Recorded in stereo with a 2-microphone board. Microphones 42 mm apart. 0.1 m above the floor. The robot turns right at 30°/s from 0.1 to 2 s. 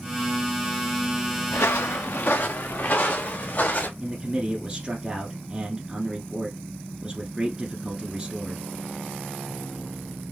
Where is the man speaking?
15° right (ahead or behind), 1.1 m.